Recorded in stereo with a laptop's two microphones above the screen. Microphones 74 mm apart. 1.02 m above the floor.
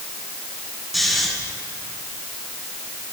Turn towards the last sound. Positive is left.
turn(degrees=-5)  # may be behind; listen again after turning